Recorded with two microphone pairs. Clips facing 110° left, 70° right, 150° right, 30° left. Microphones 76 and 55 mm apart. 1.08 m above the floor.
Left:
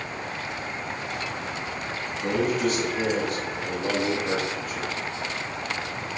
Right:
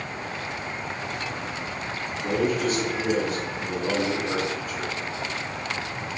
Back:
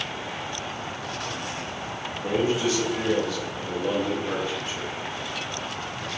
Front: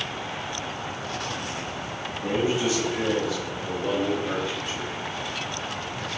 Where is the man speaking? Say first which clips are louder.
Even, even; 100° left, 2 m; by 4.9 s 140° left, 2.5 m.